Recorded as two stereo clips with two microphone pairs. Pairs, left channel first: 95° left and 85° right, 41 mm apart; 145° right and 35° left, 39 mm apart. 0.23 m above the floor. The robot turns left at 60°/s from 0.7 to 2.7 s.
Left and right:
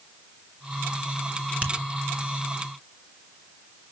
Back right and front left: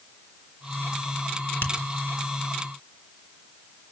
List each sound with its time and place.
1.6 s a finger snap: 135° right, 3.5 m; by 1.7 s 140° right, 3.5 m